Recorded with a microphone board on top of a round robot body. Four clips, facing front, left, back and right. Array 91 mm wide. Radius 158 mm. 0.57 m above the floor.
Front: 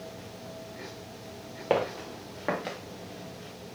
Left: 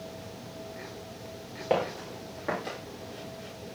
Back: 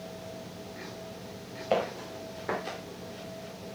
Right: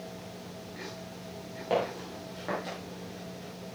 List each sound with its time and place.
1.7 s footsteps: 15° left, 3.5 m; by 2.8 s 5° left, 3 m